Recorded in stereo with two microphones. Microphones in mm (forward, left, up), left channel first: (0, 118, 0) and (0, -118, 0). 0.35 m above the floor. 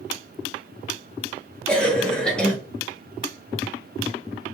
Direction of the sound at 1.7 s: 5° left (ahead or behind).